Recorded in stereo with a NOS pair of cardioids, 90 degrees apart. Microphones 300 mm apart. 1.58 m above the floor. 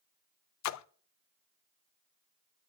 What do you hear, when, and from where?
0.6 s a splash: 65° left, 0.5 m